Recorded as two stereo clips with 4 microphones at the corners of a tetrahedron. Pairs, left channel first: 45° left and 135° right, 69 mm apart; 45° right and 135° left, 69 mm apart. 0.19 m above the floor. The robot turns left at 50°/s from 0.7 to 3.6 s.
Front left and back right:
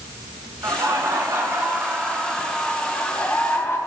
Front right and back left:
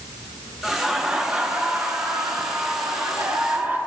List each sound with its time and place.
0.6 s laughter: 130° right, 2.5 m; by 3.8 s 85° left, 2.5 m